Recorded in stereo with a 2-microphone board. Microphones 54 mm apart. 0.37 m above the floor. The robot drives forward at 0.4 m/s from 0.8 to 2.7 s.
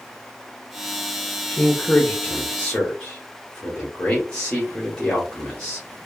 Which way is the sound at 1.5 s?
20° left (ahead or behind).